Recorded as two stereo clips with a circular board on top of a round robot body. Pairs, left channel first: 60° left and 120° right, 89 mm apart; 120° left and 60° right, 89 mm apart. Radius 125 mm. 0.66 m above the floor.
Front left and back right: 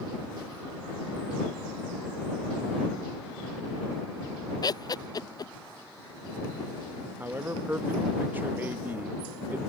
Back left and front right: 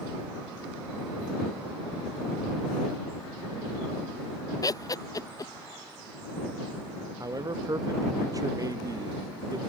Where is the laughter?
85° left.